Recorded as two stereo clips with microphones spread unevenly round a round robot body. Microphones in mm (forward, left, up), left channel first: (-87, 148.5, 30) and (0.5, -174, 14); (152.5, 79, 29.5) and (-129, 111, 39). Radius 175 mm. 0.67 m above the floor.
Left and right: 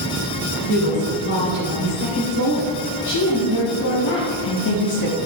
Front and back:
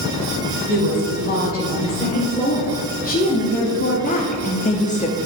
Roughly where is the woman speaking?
Ahead left.